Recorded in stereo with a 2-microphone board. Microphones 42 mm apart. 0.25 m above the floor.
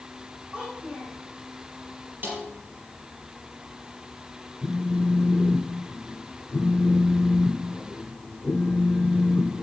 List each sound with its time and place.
0.5 s a child speaking: 25° right (ahead or behind), 6.5 m
2.2 s a snare drum: 50° right (ahead or behind), 5 m
4.6 s a phone buzzing: 40° left (ahead or behind), 2.0 m